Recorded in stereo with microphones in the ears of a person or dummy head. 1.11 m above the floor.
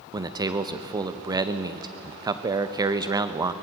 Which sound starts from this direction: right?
A man speaking, at 0.1 s.